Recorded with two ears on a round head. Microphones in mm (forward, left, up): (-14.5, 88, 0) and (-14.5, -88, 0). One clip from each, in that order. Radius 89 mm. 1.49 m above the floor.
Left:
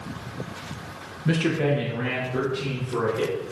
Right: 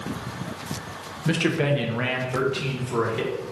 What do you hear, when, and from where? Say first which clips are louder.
1.2 s a man speaking: right 1 dB; 10° right (ahead or behind), 0.6 m; by 3.4 s 70° right (ahead or behind), 1.3 m